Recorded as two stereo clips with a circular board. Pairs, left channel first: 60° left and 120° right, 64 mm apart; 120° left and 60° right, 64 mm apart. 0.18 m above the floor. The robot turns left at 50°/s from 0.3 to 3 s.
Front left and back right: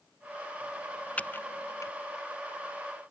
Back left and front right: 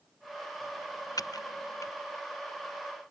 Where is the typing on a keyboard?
130° left; by 1.9 s 90° left.